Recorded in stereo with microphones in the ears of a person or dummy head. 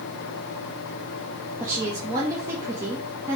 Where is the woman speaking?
15° right (ahead or behind), 1.0 m.